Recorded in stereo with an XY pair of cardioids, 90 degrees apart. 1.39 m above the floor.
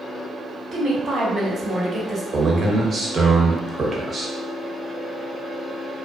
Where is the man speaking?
45° right, 0.9 m.